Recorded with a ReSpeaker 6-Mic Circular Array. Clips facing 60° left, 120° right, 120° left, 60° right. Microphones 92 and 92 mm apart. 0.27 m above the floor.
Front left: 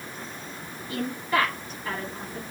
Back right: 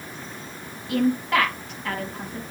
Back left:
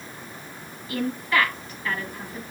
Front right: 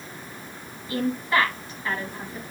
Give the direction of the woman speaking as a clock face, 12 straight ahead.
4 o'clock.